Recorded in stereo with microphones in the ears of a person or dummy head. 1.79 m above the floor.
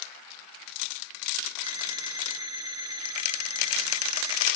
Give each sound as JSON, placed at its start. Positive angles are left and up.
{"t": 1.6, "sound": "an alarm clock", "side_deg": -20, "distance_m": 6.0}